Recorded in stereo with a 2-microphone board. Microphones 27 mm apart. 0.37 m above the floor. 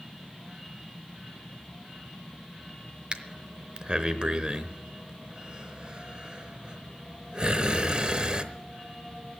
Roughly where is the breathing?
Right.